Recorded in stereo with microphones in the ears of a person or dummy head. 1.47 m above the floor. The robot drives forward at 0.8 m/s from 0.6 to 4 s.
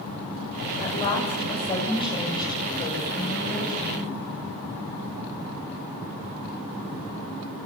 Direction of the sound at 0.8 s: 30° left (ahead or behind).